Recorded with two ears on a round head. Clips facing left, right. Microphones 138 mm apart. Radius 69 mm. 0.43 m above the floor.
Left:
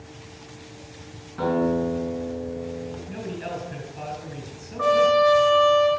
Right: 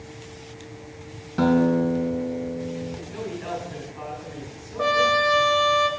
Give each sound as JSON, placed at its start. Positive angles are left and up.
{"t": 1.4, "sound": "a guitar", "side_deg": -55, "distance_m": 3.5}
{"t": 3.1, "sound": "a man speaking", "side_deg": 45, "distance_m": 4.5}
{"t": 4.8, "sound": "a trumpet", "side_deg": -35, "distance_m": 1.4}